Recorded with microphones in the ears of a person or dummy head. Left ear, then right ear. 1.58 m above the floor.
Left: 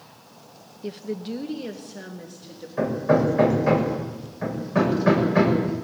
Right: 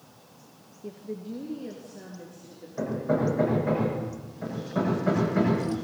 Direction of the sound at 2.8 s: 70° left (ahead or behind).